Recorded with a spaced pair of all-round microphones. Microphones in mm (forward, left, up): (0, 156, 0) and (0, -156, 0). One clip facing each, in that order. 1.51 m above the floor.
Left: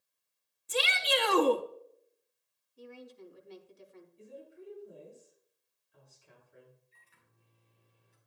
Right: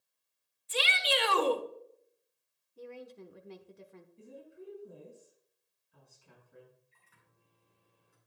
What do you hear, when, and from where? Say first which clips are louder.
0.7 s a shout: left 2 dB; 55° left (ahead or behind), 0.7 m
2.8 s a woman speaking: right 3 dB; 65° right (ahead or behind), 1.1 m
4.2 s a woman speaking: even; 70° right (ahead or behind), 5.5 m
6.9 s a microwave: even; 60° right (ahead or behind), 5.5 m